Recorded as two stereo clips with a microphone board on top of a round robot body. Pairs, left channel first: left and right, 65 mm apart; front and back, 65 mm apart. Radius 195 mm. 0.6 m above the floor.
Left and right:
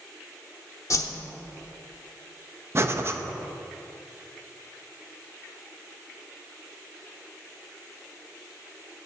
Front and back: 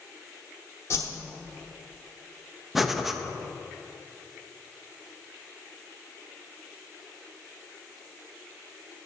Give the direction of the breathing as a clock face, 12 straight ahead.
3 o'clock.